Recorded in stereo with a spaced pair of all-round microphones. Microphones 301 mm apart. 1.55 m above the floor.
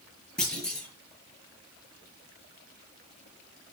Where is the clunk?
Centre (ahead or behind), 6.5 m.